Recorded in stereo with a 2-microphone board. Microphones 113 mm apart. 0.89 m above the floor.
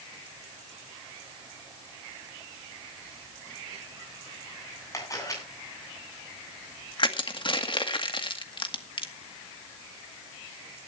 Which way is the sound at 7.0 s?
45° left (ahead or behind).